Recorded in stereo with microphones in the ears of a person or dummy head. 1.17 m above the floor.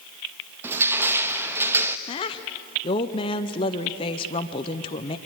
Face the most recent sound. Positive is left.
turn(degrees=25)  # may be behind; listen again after turning